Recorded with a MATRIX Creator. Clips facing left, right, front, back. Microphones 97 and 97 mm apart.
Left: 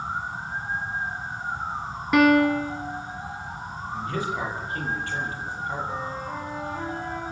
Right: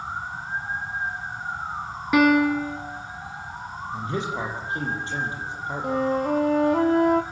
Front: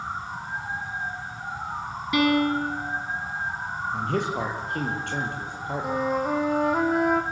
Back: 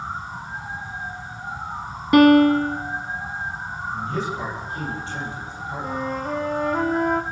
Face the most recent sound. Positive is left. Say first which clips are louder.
# right 9 dB, front 2 dB
turn(degrees=-85)